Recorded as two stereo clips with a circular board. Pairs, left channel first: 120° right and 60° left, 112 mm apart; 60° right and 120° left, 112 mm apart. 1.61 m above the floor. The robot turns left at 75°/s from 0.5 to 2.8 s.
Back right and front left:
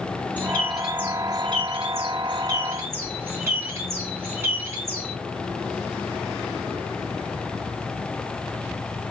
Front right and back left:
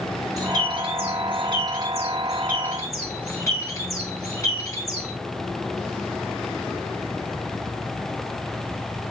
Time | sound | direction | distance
0.4 | a bird | 170° left | 3.5 m